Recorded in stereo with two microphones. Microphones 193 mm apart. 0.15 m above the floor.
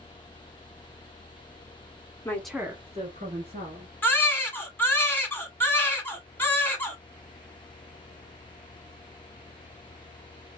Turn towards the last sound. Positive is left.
turn(degrees=10)  # may be behind; listen again after turning